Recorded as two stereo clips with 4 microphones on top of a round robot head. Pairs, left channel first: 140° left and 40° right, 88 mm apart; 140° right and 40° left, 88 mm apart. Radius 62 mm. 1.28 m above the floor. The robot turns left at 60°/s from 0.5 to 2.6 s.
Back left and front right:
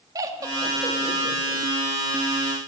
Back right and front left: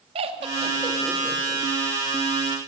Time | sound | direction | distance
0.1 | laughter | 15° left | 2.0 m